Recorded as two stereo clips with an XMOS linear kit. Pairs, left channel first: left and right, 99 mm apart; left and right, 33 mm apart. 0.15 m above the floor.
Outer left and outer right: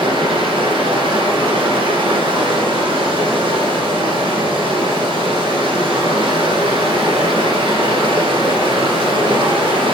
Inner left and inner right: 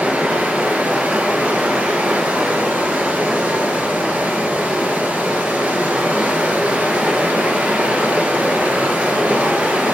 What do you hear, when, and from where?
0.0 s running water: 55° right (ahead or behind), 1.4 m